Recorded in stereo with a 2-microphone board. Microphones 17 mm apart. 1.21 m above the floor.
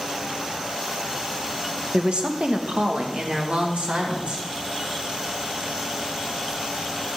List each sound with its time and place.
1.9 s a woman speaking: 60° right (ahead or behind), 1.2 m; by 4.5 s 80° right, 2.5 m